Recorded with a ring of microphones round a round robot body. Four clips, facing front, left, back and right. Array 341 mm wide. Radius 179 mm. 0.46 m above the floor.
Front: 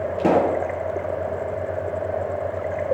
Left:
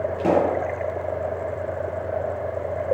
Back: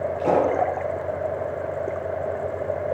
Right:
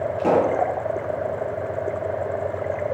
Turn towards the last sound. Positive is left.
turn(degrees=0)